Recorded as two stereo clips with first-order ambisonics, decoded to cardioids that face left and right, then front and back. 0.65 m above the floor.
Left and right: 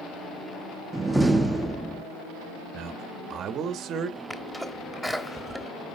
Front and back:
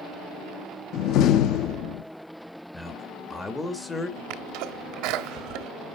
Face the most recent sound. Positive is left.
turn(degrees=180)